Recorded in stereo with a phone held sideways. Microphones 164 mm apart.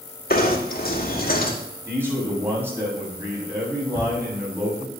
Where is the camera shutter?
15° right (ahead or behind), 7.5 m.